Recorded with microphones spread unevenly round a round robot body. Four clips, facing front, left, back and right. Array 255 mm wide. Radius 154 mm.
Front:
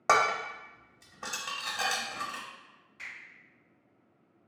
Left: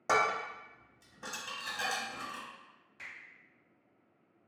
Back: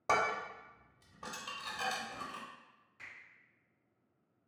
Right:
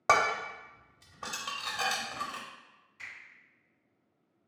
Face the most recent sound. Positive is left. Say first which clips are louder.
# right 2 dB, front 7 dB
turn(degrees=110)